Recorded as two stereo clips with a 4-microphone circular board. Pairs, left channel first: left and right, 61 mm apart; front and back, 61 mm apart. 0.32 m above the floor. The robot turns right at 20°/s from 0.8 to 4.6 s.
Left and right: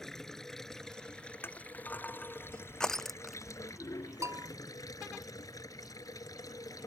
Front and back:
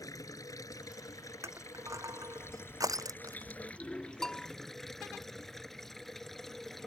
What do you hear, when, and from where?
0.0 s running water: 10° left; by 6.9 s 85° left
1.4 s crushing: 140° left; by 3.6 s 175° right
4.2 s a bell: 80° right; by 4.5 s 75° right